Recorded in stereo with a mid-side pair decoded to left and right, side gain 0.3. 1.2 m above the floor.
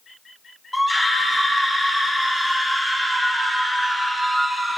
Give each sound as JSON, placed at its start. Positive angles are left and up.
{"t": 0.7, "sound": "a scream", "azimuth_deg": 15, "distance_m": 5.0}